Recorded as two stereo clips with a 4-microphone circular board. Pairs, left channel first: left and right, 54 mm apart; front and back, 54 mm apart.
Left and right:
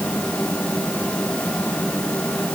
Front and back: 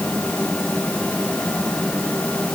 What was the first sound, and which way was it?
Only background noise.